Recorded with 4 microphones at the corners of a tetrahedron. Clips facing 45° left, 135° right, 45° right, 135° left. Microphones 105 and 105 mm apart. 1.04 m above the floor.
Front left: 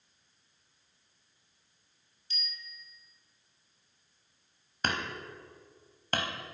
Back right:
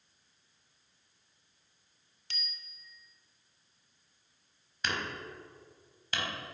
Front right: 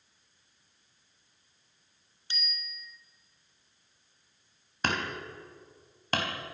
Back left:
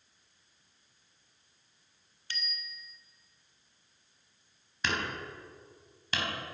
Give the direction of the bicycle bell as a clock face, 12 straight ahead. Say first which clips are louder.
Front left 2 dB, even; 4 o'clock.